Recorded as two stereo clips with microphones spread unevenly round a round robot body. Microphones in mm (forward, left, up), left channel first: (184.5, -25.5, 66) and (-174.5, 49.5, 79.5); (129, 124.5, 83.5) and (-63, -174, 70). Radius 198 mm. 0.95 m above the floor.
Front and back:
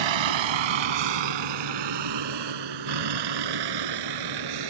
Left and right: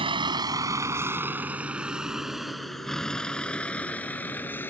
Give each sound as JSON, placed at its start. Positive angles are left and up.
{"t": 0.0, "sound": "a vehicle", "azimuth_deg": 160}